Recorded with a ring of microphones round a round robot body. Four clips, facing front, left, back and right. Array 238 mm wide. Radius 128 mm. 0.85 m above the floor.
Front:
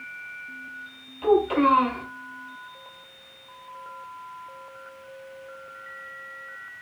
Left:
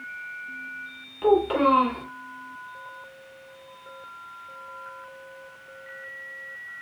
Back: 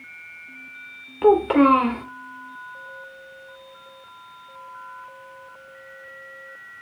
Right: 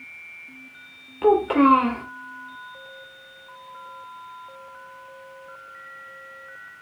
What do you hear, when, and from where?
1.2 s a child speaking: 160° right, 1.8 m